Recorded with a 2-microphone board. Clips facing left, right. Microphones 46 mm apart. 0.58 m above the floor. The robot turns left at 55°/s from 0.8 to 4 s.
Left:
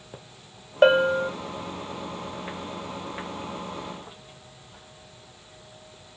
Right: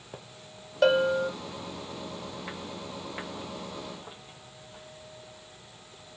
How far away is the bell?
About 0.5 m.